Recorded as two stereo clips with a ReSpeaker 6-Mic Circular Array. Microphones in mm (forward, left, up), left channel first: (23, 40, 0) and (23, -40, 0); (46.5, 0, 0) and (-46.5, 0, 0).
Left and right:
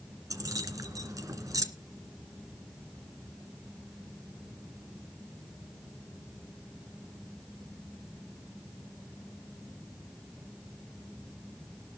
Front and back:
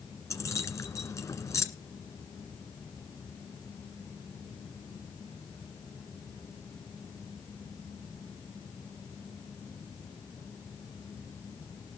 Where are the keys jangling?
50° right, 1.9 m.